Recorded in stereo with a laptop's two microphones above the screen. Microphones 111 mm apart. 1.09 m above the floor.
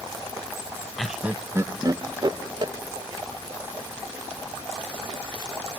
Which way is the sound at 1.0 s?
5° left (ahead or behind).